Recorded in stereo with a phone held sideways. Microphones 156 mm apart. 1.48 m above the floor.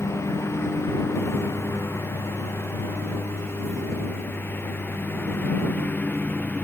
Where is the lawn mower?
20° left (ahead or behind); by 6.6 s 10° left (ahead or behind).